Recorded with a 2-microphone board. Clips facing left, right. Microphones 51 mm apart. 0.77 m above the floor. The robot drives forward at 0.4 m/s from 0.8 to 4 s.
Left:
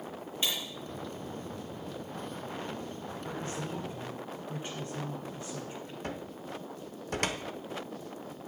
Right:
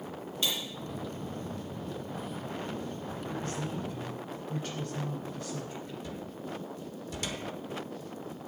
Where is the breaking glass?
25° left (ahead or behind), 5 m.